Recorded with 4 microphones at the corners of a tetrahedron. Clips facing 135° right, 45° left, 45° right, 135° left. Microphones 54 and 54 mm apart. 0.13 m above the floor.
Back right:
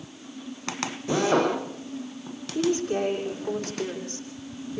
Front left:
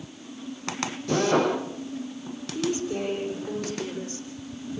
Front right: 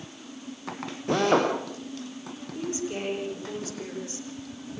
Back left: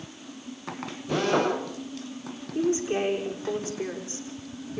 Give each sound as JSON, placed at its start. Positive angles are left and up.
{"t": 1.1, "sound": "a drill", "azimuth_deg": -65, "distance_m": 8.5}
{"t": 2.5, "sound": "a woman speaking", "azimuth_deg": -170, "distance_m": 7.0}